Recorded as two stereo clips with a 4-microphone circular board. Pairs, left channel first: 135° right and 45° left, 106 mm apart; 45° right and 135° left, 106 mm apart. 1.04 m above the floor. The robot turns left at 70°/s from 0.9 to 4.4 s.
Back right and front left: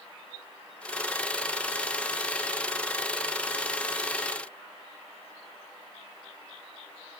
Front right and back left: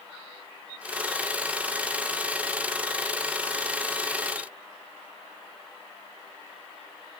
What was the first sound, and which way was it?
Only background noise.